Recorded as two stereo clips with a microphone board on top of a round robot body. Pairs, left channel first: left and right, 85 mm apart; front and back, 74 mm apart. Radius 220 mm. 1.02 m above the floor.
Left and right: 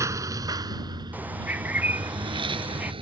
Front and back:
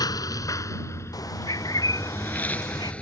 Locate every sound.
0.0 s a lawn mower: 35° right; by 3.0 s 75° right
1.1 s a bird: 20° right